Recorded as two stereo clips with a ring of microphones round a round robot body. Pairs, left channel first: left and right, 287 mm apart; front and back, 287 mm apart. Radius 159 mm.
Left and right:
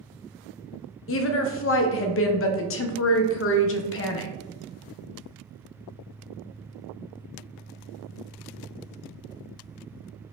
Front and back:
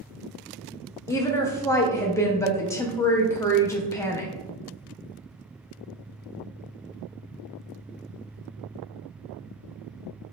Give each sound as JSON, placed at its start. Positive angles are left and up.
{"t": 1.1, "sound": "a woman speaking", "azimuth_deg": 75, "distance_m": 0.5}